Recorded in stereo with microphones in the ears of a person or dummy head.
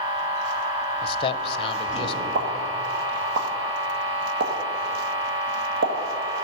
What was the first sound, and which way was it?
A machine running, 65° right (ahead or behind).